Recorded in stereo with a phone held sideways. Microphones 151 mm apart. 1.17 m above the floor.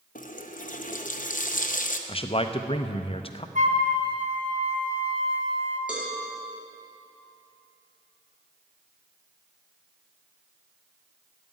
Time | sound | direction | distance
0.1 | a running tap | 60° left (ahead or behind) | 0.7 m
2.1 | a man speaking | 40° left (ahead or behind) | 0.7 m
3.5 | a flute | 55° right (ahead or behind) | 1.2 m
5.9 | a cowbell | 5° right (ahead or behind) | 3 m